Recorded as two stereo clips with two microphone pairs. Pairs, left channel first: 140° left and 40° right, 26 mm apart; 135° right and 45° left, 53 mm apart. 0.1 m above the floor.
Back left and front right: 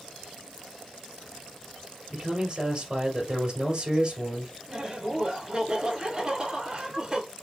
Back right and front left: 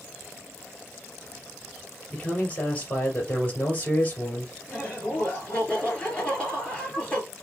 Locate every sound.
2.1 s a man speaking: 80° right, 2.5 m
4.7 s laughter: 75° right, 2 m